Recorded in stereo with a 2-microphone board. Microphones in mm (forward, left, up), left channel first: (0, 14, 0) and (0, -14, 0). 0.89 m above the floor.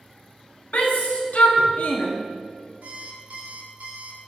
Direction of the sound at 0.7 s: 60° left (ahead or behind).